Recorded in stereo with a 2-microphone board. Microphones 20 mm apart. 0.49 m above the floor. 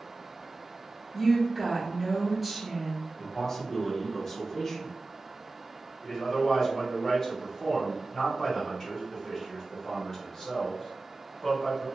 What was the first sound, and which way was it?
A woman speaking, 10° right (ahead or behind).